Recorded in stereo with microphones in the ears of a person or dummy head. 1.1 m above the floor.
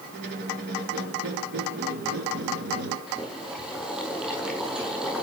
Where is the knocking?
I don't hear knocking.